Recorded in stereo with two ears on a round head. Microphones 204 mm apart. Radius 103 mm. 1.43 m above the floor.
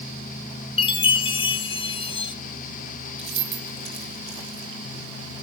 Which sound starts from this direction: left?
A chime, at 0.8 s.